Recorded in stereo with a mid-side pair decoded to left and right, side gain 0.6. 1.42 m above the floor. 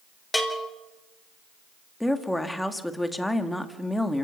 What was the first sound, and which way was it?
A bell, 10° left.